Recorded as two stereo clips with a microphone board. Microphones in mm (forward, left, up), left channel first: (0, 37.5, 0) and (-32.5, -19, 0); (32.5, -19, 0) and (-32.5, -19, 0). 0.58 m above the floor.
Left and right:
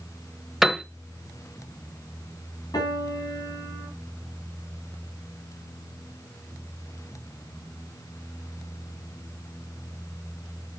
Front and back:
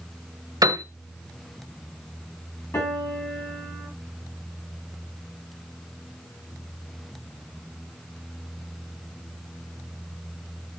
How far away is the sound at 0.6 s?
About 1.5 m.